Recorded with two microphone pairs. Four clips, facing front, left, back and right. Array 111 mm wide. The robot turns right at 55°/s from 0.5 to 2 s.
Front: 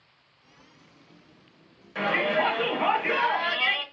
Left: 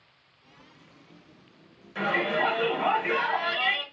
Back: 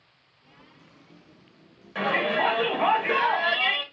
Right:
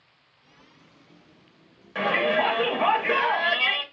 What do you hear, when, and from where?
1.9 s a shout: 110° right, 1.0 m